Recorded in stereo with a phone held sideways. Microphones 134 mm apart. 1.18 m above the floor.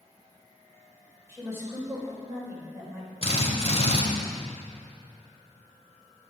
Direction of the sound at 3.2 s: 50° left (ahead or behind).